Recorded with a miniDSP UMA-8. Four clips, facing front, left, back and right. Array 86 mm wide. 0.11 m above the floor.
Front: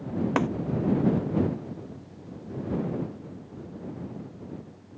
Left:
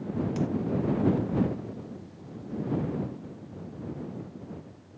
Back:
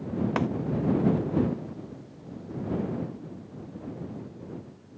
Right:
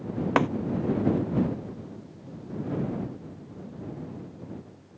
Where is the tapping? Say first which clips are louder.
Right 9 dB, front 3 dB; 80° right.